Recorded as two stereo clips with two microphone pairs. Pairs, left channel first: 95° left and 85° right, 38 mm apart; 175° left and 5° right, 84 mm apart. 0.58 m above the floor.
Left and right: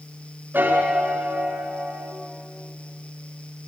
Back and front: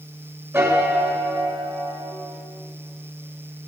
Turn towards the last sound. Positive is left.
turn(degrees=-60)